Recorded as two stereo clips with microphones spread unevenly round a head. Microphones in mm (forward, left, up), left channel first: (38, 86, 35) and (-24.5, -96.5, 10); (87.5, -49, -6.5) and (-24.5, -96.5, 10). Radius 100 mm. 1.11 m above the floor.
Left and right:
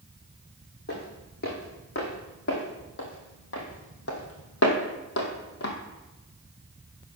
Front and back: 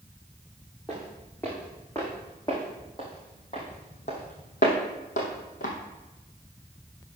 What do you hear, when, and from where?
0.9 s footsteps: 110° left, 3.5 m; by 5.8 s 50° left, 2 m